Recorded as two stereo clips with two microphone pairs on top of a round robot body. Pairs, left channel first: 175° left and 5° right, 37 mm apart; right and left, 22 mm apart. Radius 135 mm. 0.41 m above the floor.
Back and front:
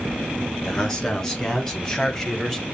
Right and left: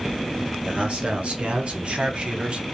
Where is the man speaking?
105° left, 2.5 m; by 2.6 s 110° left, 1.3 m.